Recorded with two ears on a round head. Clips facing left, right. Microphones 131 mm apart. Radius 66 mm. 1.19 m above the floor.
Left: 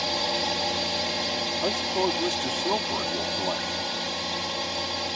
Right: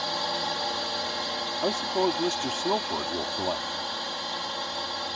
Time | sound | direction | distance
0.0 | a drone | 20° left (ahead or behind) | ?
1.6 | a man speaking | 5° right (ahead or behind) | ?